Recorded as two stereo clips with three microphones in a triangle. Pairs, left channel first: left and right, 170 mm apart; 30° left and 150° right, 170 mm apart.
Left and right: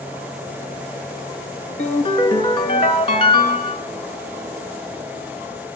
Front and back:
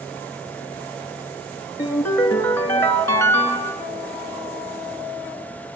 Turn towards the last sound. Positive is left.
turn(degrees=90)